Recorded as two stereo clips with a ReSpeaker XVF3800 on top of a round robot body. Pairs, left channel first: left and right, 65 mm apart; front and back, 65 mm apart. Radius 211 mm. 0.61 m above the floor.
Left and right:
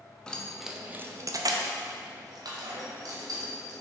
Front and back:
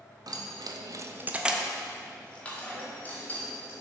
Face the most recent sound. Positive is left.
turn(degrees=-60)